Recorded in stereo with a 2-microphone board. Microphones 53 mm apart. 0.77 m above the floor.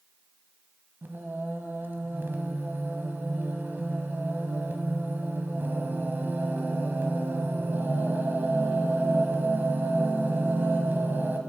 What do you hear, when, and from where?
1.0 s singing: 45° right (ahead or behind), 0.9 m